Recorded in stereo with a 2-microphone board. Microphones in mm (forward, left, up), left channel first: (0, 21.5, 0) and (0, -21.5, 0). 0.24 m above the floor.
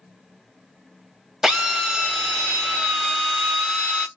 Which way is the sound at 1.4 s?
10° right (ahead or behind).